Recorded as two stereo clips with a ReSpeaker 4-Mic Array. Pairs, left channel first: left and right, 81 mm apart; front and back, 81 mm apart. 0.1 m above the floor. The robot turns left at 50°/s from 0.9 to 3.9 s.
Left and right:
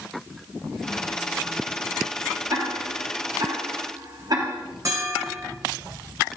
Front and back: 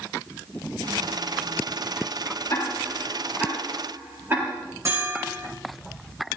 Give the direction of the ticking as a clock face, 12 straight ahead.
2 o'clock.